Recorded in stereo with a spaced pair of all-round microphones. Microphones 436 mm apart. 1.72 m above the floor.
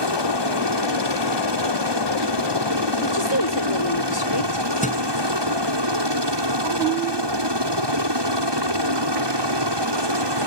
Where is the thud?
15° left (ahead or behind).